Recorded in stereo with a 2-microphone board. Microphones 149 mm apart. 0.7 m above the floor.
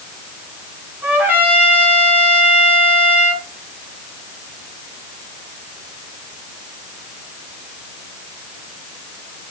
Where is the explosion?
No explosion in this recording.